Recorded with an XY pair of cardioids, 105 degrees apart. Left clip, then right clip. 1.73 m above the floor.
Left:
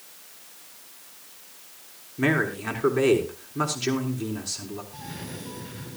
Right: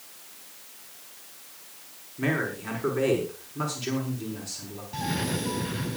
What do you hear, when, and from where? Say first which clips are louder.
2.2 s a man speaking: left 4 dB; 40° left, 5 m
4.9 s a cough: right 9 dB; 55° right, 1.0 m